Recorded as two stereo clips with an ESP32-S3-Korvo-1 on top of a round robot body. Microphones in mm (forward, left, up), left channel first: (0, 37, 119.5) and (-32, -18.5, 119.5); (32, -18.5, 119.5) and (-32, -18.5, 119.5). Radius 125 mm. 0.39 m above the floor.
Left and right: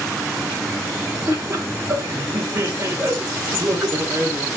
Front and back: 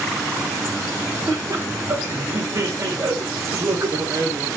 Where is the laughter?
165° right, 2.0 m.